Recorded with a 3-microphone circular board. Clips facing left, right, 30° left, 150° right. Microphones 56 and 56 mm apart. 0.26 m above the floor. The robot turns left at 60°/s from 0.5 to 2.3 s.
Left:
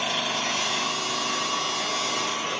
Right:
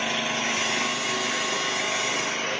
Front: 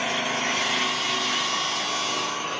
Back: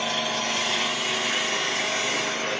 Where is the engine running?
30° right, 3 m; by 2.6 s 135° right, 3 m.